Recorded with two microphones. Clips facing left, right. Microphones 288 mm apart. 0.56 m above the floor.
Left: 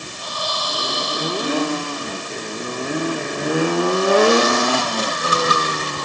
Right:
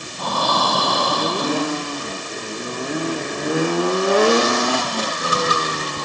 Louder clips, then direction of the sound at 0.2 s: Right 9 dB; 70° right (ahead or behind).